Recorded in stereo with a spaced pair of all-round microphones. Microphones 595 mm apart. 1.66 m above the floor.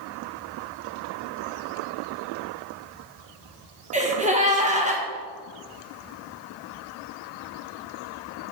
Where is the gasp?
10° right (ahead or behind), 0.8 m.